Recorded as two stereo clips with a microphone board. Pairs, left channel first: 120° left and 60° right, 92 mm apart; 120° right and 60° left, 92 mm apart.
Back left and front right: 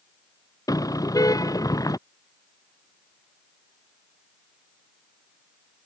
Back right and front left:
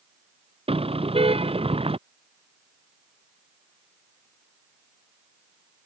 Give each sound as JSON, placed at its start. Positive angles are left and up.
{"t": 0.7, "sound": "a car horn", "azimuth_deg": 70}